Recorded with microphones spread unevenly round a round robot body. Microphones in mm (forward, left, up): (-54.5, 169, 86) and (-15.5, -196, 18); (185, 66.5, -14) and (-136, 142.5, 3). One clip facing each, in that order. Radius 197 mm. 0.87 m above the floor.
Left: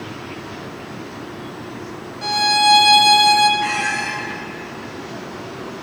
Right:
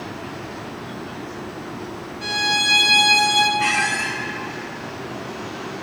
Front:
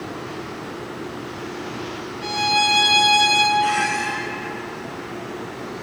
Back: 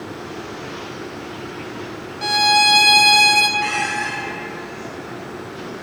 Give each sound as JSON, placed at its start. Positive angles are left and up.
{"t": 2.2, "sound": "a violin", "azimuth_deg": 170, "distance_m": 0.8}
{"t": 3.6, "sound": "a squeak", "azimuth_deg": -130, "distance_m": 1.7}